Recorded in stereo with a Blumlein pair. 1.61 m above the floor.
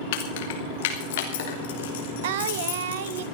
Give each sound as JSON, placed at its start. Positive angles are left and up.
{"t": 0.1, "sound": "keys jangling", "azimuth_deg": 50, "distance_m": 2.5}
{"t": 2.2, "sound": "singing", "azimuth_deg": -55, "distance_m": 1.0}